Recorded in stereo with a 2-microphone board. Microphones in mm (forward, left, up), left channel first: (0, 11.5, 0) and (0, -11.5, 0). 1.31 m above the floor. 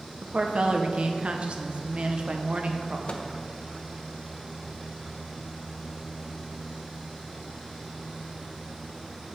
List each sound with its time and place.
0.2 s a woman speaking: 50° right (ahead or behind), 0.9 m
3.1 s a microwave: 50° left (ahead or behind), 0.8 m